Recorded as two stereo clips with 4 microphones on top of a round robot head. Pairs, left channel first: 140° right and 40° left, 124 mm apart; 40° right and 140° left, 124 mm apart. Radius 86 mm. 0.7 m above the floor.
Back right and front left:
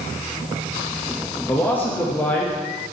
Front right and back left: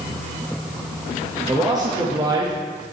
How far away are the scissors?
No scissors in this recording.